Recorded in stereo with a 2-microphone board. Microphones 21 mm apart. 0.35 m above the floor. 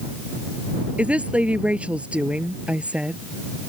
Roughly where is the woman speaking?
Right.